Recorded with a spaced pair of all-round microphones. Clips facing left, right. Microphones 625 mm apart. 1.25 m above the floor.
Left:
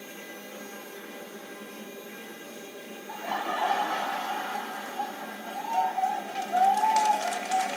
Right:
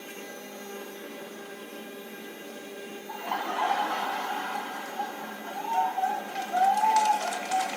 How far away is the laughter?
About 1.1 m.